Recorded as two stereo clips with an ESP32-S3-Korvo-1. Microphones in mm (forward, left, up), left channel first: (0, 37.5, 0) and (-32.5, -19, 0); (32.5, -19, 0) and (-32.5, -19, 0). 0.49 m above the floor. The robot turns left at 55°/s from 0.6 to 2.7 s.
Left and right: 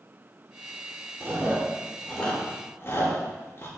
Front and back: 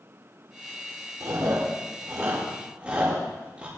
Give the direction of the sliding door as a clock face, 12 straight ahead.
No sliding door in this recording.